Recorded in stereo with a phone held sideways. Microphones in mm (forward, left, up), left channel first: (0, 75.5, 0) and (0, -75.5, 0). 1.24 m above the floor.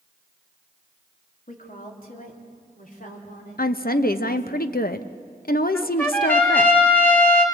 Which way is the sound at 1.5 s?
65° left (ahead or behind).